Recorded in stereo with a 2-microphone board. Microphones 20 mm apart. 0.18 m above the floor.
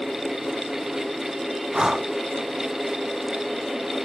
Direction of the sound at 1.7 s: 35° right (ahead or behind).